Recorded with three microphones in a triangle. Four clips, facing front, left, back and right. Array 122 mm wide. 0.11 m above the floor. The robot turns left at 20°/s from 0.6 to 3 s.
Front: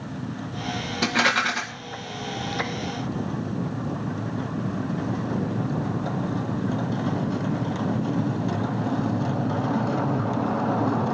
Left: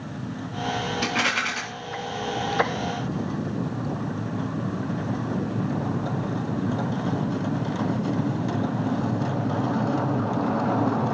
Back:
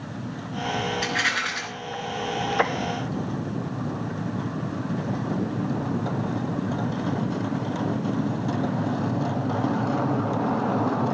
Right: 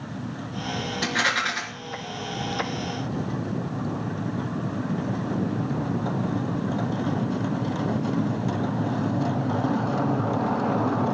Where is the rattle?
20° left, 4 m; by 1.6 s 10° left, 4 m.